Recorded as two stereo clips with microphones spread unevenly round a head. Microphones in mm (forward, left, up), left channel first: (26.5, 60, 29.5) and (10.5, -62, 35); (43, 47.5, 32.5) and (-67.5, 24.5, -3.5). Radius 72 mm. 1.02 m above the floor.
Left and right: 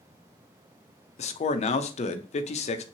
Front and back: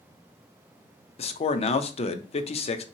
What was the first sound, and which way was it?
A man speaking, 50° left.